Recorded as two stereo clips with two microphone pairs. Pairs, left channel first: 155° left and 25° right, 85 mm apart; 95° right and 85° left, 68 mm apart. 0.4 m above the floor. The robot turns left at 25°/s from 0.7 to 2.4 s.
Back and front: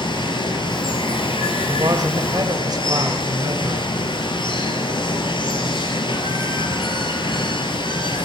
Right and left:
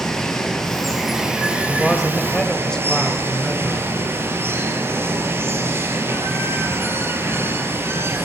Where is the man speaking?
Straight ahead, 2.5 m; by 3.9 s 20° right, 2.5 m.